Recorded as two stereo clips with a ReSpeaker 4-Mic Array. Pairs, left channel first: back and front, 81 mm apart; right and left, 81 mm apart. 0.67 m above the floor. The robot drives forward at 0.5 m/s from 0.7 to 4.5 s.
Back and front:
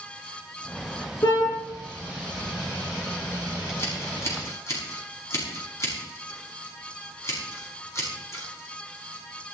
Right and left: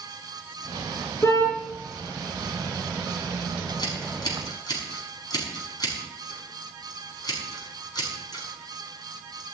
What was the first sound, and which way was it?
A car horn, 145° right.